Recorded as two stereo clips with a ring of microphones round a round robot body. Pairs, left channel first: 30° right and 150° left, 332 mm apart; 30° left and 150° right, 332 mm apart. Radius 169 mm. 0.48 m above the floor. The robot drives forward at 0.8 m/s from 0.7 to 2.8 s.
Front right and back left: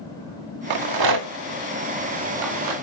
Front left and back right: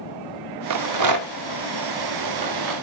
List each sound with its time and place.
0.7 s a rattle: 170° left, 0.6 m; by 2.7 s 175° left, 2 m